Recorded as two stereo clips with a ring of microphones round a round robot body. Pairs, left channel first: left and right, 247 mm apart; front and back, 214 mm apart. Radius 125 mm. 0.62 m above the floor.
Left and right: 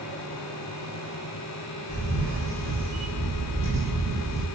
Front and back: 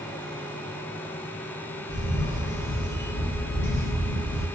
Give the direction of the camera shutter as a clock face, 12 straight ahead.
1 o'clock.